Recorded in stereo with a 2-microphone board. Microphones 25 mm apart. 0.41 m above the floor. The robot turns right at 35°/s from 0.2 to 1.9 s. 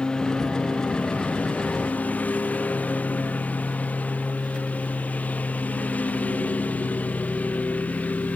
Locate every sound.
0.0 s a lawn mower: 35° left (ahead or behind); by 8.4 s 85° left